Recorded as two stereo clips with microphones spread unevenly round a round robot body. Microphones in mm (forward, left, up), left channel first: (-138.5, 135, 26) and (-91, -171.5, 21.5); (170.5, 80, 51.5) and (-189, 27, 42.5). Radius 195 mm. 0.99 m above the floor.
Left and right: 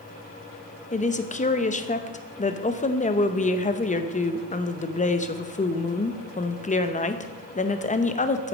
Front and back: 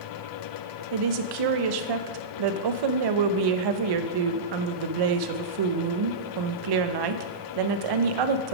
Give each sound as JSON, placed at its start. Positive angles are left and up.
{"t": 0.9, "sound": "a woman speaking", "azimuth_deg": 170, "distance_m": 0.8}